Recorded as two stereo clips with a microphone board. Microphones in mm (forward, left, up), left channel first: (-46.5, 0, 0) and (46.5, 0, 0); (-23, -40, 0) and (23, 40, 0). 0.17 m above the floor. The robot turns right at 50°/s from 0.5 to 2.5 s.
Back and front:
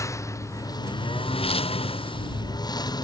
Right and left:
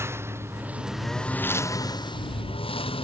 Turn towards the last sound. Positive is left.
turn(degrees=-135)